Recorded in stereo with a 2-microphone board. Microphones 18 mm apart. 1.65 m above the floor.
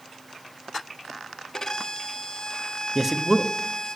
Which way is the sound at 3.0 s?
20° right (ahead or behind).